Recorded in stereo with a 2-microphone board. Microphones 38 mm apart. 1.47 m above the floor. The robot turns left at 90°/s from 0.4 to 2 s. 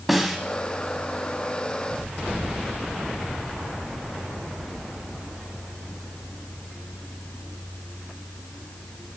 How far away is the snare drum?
About 1.4 m.